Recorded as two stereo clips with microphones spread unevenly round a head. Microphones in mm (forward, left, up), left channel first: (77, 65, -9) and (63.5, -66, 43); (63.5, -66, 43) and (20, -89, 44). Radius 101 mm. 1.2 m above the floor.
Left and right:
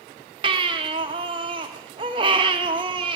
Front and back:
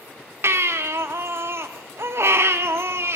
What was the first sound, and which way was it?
A baby crying, 135° right.